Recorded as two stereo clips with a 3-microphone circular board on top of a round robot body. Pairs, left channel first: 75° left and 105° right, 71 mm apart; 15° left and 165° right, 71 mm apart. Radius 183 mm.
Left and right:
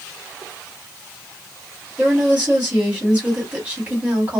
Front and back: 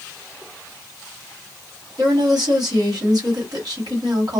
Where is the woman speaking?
Straight behind, 1.9 m.